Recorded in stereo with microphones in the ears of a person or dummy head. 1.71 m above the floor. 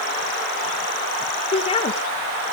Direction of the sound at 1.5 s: 35° left (ahead or behind).